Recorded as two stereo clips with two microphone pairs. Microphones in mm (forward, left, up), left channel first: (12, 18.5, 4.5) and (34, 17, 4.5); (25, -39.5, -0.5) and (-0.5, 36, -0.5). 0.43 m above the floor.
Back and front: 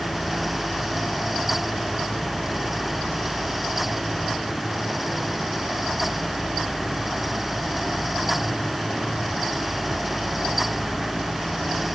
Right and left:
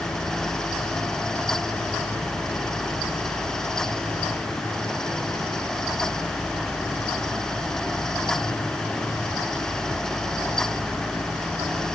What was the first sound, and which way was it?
Only background noise.